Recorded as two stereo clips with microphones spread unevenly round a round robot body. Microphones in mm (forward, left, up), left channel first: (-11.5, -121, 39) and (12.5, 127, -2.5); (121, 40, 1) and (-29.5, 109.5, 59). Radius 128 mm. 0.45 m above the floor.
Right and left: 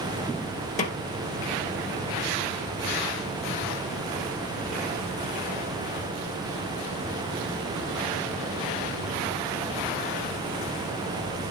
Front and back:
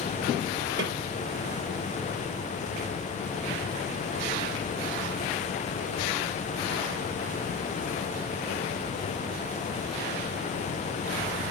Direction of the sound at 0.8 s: 160° right.